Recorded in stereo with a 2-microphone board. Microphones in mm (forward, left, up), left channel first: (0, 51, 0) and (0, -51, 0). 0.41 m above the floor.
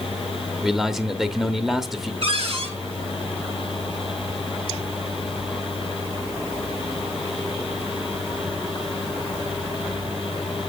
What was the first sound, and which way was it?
A man speaking, centre (ahead or behind).